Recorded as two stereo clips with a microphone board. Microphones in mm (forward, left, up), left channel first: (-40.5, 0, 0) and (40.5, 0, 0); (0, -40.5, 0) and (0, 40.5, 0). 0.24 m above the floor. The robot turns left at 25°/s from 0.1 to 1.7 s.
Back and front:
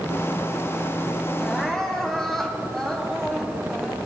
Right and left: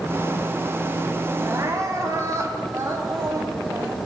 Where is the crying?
105° left, 1.7 m; by 4.0 s 100° left, 1.7 m.